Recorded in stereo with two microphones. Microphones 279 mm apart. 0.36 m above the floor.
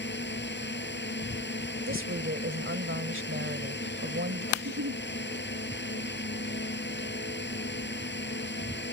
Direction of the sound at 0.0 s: 40° left (ahead or behind).